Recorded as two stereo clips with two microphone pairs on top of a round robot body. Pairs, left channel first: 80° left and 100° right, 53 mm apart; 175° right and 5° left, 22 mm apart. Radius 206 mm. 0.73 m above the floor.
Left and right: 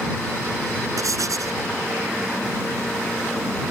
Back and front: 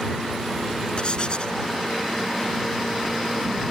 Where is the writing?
120° right.